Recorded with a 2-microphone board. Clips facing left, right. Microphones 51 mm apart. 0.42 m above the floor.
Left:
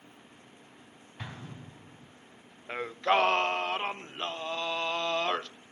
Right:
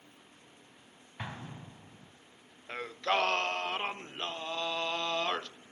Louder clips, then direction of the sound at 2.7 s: Left 4 dB; 20° left (ahead or behind).